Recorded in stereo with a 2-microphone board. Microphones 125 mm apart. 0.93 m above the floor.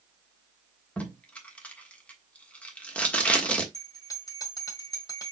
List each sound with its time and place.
1.0 s tape being pulled: 10° left (ahead or behind), 1.3 m
3.7 s a bell: 30° left (ahead or behind), 1.5 m